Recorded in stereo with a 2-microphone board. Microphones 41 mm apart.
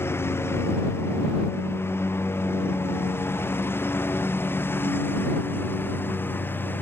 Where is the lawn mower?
85° left; by 6.8 s 60° left (ahead or behind).